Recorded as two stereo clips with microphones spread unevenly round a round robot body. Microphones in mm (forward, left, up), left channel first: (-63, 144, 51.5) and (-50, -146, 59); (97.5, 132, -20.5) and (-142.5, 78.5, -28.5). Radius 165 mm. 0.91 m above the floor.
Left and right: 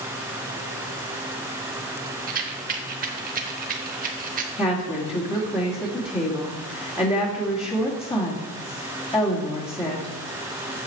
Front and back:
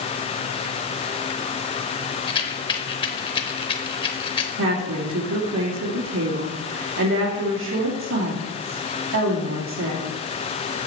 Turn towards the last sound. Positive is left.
turn(degrees=160)